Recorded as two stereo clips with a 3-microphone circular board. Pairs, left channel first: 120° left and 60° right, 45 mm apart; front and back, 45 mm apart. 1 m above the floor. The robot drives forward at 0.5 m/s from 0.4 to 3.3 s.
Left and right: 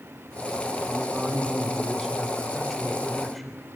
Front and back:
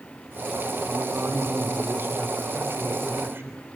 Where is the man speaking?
135° right, 2.5 m; by 3.6 s 150° right, 3.5 m.